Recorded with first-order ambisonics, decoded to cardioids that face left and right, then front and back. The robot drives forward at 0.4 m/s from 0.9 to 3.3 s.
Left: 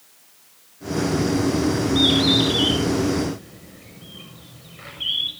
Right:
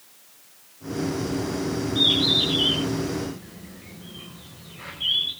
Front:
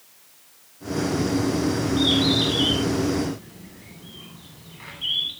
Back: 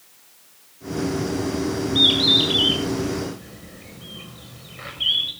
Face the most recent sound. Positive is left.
turn(degrees=165)